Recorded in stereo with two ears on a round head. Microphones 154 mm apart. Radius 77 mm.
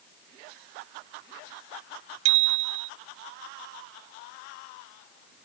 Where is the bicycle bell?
85° right.